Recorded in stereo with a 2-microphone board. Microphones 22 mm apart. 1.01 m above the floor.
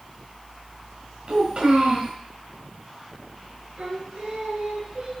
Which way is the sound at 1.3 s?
55° right (ahead or behind).